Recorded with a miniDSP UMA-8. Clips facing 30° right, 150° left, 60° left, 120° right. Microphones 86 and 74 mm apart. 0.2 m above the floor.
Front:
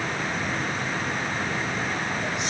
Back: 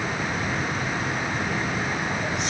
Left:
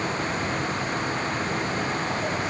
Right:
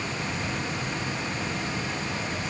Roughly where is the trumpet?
No trumpet in this recording.